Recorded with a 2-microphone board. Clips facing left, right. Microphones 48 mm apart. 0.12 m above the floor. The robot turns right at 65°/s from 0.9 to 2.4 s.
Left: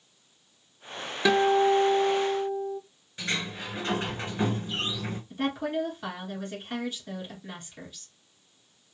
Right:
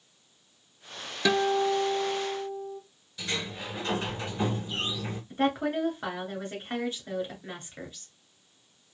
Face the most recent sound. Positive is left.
turn(degrees=-30)  # may be behind; listen again after turning